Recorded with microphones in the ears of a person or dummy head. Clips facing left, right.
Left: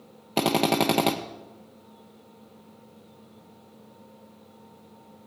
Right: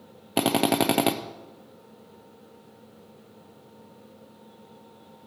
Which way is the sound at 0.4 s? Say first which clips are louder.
Even; 5° right (ahead or behind).